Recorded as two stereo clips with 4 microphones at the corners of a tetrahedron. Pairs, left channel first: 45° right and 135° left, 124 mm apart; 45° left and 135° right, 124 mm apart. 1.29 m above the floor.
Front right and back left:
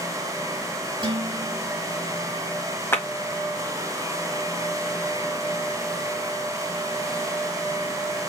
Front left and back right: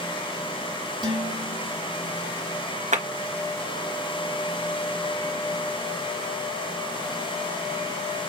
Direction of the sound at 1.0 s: Straight behind.